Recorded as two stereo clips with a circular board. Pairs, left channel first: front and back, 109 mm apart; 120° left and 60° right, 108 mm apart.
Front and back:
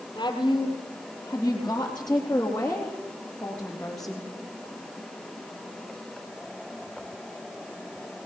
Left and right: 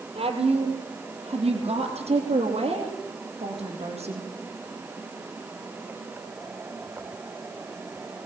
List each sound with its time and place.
0.1 s a woman speaking: 50° right, 3.5 m; by 4.3 s 85° right, 5 m